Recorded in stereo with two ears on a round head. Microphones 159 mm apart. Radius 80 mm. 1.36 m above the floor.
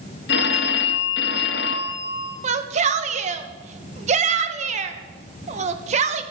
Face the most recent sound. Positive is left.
turn(degrees=-40)  # may be behind; listen again after turning